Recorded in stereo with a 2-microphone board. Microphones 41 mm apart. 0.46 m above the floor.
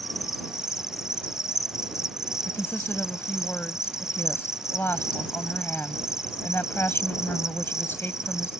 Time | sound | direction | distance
0.0 | an insect | 15° right (ahead or behind) | ?
2.5 | a woman speaking | 65° left (ahead or behind) | ?